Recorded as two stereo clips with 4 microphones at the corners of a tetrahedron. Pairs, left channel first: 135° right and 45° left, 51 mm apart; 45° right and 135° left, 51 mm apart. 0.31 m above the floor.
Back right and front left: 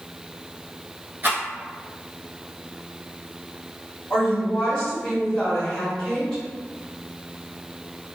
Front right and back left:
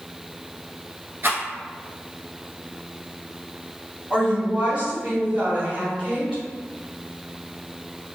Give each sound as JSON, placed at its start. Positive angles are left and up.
{"t": 1.2, "sound": "a rattle", "azimuth_deg": 95, "distance_m": 1.0}
{"t": 4.1, "sound": "a woman speaking", "azimuth_deg": 165, "distance_m": 1.6}